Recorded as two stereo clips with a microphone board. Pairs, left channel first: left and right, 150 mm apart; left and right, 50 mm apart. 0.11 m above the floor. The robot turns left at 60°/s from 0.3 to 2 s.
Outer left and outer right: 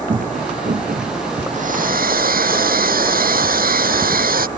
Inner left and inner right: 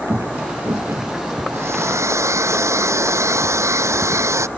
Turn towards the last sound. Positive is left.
turn(degrees=-75)  # may be behind; listen again after turning